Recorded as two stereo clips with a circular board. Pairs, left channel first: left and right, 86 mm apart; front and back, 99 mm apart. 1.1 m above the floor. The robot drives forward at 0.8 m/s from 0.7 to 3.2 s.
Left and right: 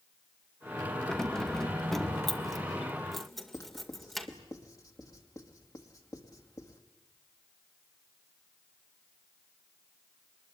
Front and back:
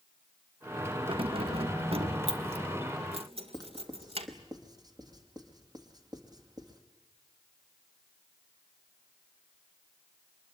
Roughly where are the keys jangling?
Behind.